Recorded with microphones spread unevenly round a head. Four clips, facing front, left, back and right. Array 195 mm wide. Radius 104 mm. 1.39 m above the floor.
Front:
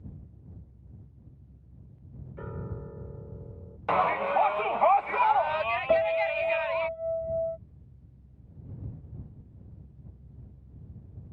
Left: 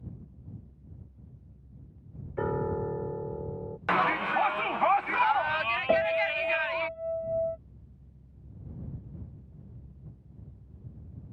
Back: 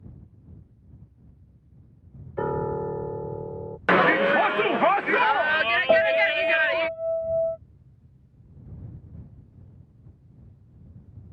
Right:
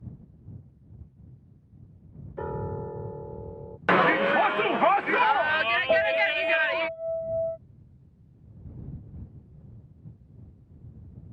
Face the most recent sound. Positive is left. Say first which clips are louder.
# right 2 dB, back 5 dB
turn(degrees=150)